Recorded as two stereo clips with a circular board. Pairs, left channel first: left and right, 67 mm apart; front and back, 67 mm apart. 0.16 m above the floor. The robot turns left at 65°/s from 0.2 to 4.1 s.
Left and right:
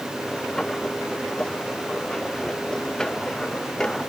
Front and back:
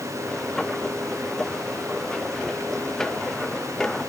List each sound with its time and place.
Only background noise.